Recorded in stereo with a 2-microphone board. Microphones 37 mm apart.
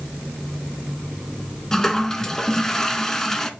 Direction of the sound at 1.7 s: 15° left (ahead or behind).